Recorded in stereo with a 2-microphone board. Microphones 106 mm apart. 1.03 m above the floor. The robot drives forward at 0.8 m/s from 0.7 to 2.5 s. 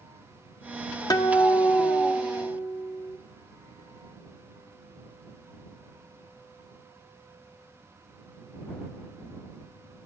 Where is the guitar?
40° left (ahead or behind), 1.3 m; by 3.2 s 20° left (ahead or behind), 2.5 m.